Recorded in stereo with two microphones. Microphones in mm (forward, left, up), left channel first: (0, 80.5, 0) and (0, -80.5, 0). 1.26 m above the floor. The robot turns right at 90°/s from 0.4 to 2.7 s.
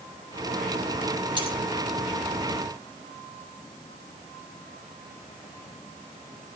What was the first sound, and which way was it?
Cutlery clinking, 30° right (ahead or behind).